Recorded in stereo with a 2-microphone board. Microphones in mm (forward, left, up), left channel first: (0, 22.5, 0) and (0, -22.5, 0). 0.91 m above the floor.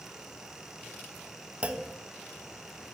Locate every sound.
1.6 s a clunk: 30° right (ahead or behind), 1.4 m